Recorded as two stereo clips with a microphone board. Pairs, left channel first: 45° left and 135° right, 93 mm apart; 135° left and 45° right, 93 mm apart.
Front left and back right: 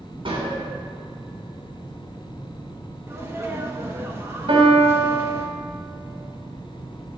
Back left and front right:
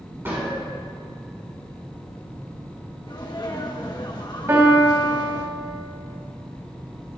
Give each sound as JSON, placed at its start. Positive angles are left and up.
{"t": 0.2, "sound": "a gunshot", "azimuth_deg": -115, "distance_m": 3.5}
{"t": 3.1, "sound": "a sneeze", "azimuth_deg": 170, "distance_m": 1.1}
{"t": 4.5, "sound": "a piano", "azimuth_deg": -110, "distance_m": 3.0}